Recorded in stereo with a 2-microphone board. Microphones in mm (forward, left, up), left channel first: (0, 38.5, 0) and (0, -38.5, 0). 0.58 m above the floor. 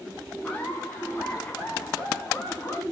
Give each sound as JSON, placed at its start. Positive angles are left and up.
{"t": 0.4, "sound": "laughter", "side_deg": 20, "distance_m": 6.0}